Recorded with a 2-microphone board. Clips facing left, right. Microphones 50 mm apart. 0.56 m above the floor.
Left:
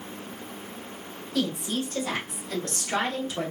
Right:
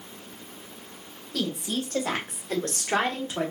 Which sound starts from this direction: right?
A woman speaking, at 1.3 s.